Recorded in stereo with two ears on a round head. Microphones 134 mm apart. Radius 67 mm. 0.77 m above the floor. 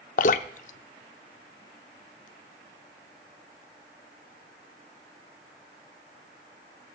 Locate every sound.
0.2 s dripping: 60° left (ahead or behind), 0.6 m